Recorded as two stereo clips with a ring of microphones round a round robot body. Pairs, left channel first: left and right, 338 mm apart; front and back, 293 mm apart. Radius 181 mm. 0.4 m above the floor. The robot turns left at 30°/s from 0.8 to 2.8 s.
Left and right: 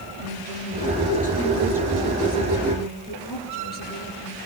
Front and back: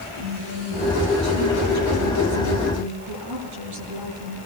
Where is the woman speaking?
145° right, 9.5 m; by 4.4 s 155° left, 9.5 m.